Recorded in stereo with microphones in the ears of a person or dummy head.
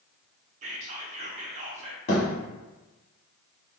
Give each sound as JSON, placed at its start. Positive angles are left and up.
{"t": 0.6, "sound": "whispering", "side_deg": -40, "distance_m": 0.7}
{"t": 2.1, "sound": "a thud", "side_deg": 35, "distance_m": 1.2}